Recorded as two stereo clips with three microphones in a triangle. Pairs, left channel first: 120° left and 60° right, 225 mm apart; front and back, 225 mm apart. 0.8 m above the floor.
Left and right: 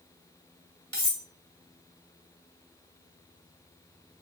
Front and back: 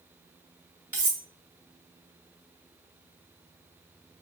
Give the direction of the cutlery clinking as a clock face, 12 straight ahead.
10 o'clock.